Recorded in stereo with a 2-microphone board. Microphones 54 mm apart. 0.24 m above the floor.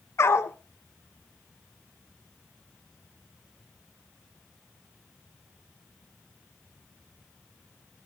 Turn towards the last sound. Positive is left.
turn(degrees=55)  # may be behind; listen again after turning